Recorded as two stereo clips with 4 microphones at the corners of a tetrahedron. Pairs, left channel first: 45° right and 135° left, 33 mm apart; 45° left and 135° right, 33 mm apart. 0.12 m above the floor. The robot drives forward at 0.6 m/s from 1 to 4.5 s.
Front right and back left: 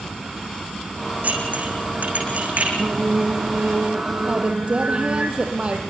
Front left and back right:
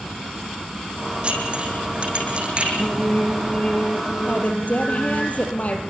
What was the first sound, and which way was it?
Dishes clattering, 170° left.